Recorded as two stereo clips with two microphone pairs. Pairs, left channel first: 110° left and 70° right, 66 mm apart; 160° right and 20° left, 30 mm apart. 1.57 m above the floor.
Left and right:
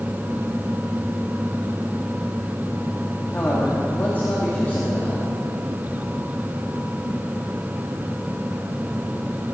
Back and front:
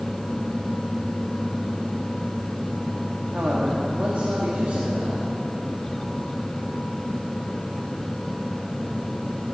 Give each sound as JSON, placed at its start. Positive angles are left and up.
{"t": 3.3, "sound": "a man speaking", "azimuth_deg": 55, "distance_m": 2.5}